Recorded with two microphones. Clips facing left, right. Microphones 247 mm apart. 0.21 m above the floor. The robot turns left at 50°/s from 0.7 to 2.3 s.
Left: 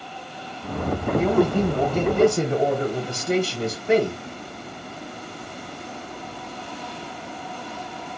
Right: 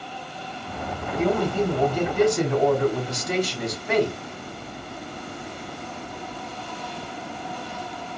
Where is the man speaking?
Straight behind, 1.1 m; by 4.2 s 120° left, 1.1 m.